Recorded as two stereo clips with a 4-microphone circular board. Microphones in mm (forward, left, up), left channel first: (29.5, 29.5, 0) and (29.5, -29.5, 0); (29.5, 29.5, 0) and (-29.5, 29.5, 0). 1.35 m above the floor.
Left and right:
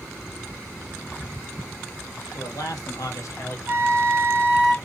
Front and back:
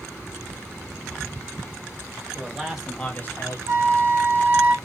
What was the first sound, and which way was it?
A man speaking, 105° left.